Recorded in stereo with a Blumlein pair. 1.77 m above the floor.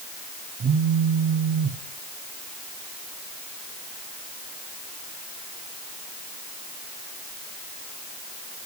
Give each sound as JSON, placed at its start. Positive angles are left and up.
{"t": 0.6, "sound": "a phone buzzing", "azimuth_deg": -30, "distance_m": 0.9}